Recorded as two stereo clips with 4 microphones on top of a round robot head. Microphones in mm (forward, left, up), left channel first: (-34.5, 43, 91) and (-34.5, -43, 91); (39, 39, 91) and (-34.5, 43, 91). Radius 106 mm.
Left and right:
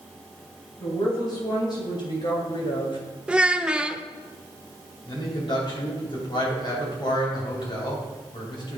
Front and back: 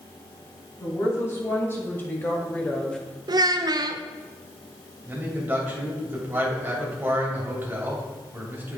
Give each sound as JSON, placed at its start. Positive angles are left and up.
{"t": 0.8, "sound": "a woman speaking", "azimuth_deg": 50, "distance_m": 3.0}
{"t": 3.3, "sound": "a child speaking", "azimuth_deg": -170, "distance_m": 0.6}
{"t": 5.0, "sound": "a man speaking", "azimuth_deg": 115, "distance_m": 3.0}